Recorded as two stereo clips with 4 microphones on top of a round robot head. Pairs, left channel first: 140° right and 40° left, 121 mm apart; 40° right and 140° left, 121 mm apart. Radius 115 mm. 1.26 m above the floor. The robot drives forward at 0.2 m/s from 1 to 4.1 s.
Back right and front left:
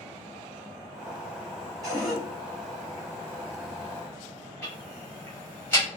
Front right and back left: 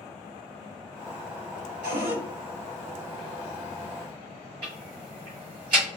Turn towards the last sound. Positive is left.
turn(degrees=150)